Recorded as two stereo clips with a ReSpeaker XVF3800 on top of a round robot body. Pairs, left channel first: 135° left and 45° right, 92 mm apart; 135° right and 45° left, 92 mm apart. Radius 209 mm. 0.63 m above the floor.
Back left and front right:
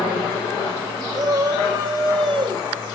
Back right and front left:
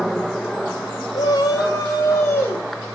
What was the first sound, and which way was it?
A shout, 85° right.